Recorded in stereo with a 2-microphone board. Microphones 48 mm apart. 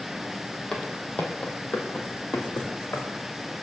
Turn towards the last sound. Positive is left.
turn(degrees=70)  # may be behind; listen again after turning